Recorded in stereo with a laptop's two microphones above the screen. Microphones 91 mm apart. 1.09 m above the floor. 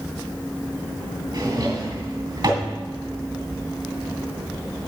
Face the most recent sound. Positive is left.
turn(degrees=-55)  # may be behind; listen again after turning